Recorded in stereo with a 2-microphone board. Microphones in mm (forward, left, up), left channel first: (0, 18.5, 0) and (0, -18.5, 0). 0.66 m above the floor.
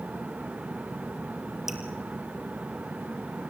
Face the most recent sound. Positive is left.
turn(degrees=-10)  # may be behind; listen again after turning